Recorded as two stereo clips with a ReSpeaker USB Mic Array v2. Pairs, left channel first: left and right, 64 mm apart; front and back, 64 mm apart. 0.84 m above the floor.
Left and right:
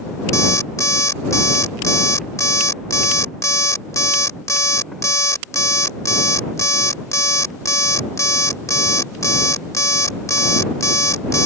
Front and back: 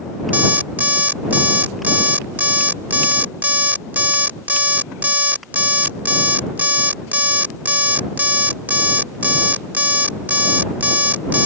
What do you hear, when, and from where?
0.3 s an alarm clock: 120° left